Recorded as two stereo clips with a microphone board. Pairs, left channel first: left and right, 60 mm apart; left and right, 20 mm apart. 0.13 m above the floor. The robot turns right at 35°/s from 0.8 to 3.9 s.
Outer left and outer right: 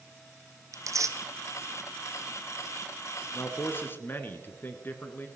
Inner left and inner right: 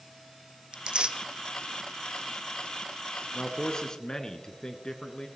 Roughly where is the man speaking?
Left.